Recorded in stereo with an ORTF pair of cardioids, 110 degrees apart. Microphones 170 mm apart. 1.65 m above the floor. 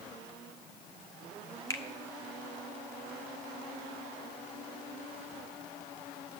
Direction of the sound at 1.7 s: 20° left.